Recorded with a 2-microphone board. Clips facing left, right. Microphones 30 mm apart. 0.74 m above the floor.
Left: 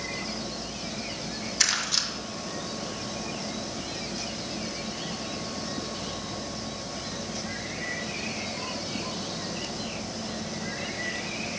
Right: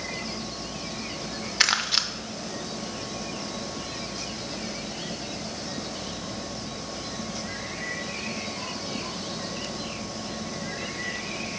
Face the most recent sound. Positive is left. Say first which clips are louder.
# right 4 dB
turn(degrees=-30)  # may be behind; listen again after turning